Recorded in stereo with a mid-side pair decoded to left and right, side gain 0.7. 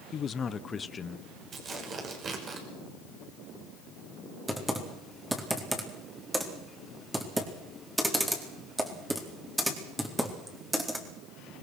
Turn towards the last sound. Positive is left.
turn(degrees=-10)